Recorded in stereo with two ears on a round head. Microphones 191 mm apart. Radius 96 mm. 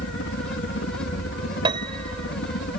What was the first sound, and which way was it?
A helicopter, 60° left (ahead or behind).